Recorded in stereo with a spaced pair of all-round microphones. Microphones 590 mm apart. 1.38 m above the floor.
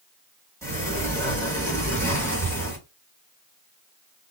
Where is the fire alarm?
No fire alarm in this recording.